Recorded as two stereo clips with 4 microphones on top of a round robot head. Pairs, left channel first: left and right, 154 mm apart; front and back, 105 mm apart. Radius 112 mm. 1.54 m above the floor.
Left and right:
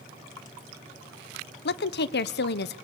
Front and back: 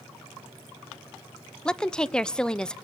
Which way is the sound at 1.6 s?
85° left.